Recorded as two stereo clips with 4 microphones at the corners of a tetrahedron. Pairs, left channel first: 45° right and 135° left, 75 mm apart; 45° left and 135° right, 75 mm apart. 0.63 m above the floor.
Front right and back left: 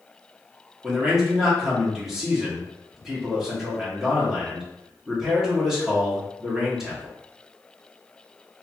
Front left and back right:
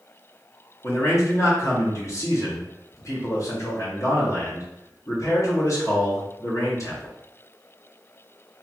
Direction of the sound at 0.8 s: 55° left.